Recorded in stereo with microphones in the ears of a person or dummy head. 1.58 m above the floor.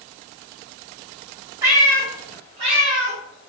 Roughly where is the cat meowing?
Centre.